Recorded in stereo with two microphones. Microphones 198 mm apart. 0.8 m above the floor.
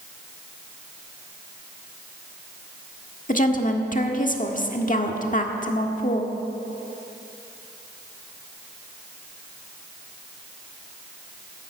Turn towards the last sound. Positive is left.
turn(degrees=45)  # may be behind; listen again after turning